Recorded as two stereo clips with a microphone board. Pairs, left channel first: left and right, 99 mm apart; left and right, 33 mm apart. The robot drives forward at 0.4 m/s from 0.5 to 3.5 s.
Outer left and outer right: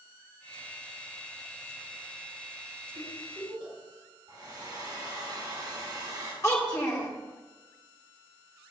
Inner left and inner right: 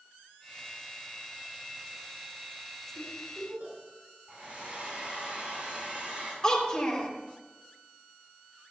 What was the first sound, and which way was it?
A giggle, 65° right (ahead or behind).